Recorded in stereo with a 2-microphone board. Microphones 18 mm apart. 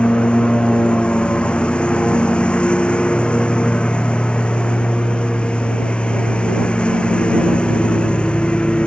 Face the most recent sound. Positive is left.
turn(degrees=70)  # may be behind; listen again after turning